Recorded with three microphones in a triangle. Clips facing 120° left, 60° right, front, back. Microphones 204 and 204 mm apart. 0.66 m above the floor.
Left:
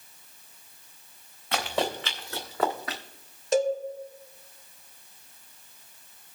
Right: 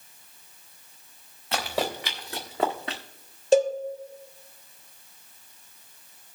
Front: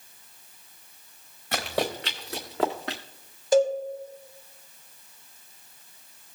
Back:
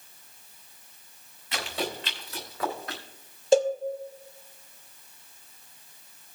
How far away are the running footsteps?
About 2.5 m.